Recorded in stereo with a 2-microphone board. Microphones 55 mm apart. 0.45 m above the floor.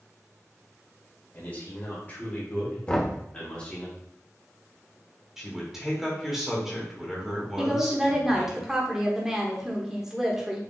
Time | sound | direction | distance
1.3 | a man speaking | 30° left (ahead or behind) | 2.0 m
2.9 | knocking | 20° left (ahead or behind) | 0.8 m
5.4 | a man speaking | 10° right (ahead or behind) | 1.3 m
7.6 | a woman speaking | 10° right (ahead or behind) | 1.0 m